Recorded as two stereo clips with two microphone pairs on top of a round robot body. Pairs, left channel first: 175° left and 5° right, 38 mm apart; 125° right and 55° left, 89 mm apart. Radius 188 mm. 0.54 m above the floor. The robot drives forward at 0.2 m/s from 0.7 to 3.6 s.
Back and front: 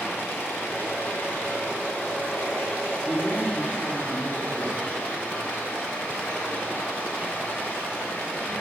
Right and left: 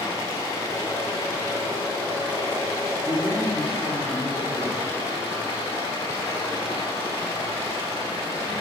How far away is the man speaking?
About 1.8 m.